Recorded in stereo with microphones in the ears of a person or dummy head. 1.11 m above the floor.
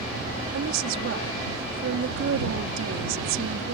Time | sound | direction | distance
0.5 | a woman speaking | 75° right (ahead or behind) | ?